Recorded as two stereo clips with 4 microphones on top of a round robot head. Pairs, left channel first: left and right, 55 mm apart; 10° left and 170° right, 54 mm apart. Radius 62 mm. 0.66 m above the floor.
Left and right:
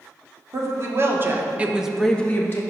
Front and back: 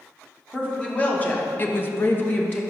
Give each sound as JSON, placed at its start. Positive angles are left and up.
{"t": 0.5, "sound": "a woman speaking", "azimuth_deg": -65, "distance_m": 1.5}